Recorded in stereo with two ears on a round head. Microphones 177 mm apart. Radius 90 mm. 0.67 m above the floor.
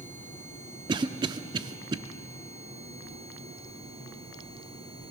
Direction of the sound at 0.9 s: 20° right (ahead or behind).